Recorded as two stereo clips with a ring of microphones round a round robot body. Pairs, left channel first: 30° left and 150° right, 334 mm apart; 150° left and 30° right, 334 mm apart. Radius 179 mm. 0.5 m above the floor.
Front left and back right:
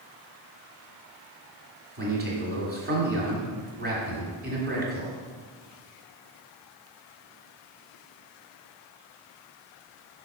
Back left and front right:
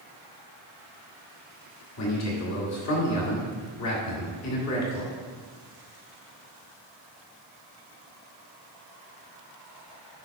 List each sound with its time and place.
2.0 s a man speaking: 155° left, 1.8 m